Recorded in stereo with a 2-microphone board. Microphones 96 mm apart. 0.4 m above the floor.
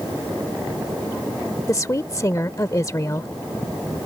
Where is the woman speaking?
35° left (ahead or behind).